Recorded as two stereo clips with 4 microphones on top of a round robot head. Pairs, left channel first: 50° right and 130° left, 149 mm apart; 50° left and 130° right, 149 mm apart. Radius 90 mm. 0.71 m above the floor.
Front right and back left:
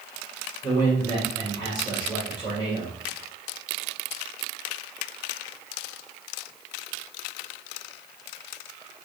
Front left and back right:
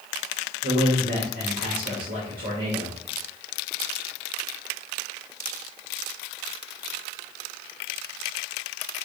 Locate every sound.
0.6 s a man speaking: 115° right, 3.5 m